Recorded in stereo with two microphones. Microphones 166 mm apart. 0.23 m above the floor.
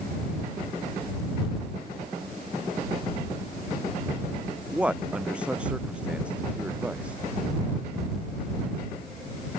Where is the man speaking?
5° right (ahead or behind).